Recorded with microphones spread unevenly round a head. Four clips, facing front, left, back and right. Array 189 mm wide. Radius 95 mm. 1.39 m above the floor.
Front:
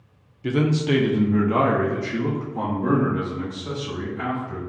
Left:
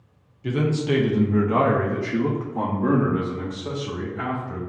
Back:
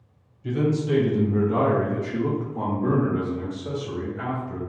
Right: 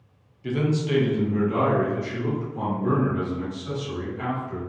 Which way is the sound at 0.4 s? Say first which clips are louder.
Left 2 dB, front 2 dB; 10° left.